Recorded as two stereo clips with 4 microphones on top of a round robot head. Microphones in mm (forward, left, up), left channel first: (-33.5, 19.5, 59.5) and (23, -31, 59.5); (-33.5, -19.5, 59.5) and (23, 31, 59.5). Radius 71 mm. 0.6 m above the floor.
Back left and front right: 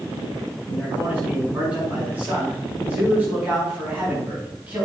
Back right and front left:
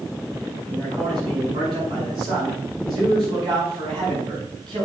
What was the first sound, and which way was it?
A man speaking, 30° left.